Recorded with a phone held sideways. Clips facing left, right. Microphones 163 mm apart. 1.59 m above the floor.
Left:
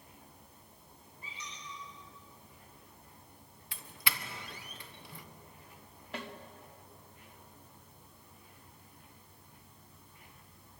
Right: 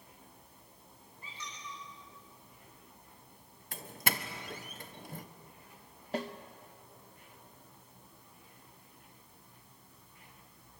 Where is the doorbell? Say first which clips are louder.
Right 5 dB; 45° right (ahead or behind), 1.3 m.